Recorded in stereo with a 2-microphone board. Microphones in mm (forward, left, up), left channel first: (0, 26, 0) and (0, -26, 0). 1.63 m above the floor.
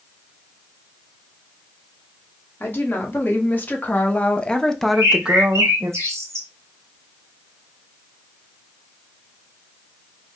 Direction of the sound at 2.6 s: 45° left (ahead or behind).